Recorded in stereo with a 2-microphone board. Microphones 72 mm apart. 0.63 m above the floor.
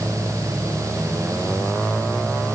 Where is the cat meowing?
No cat meowing in this recording.